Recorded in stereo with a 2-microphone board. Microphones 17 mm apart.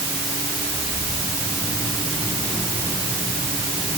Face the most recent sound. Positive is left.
No sound to turn to.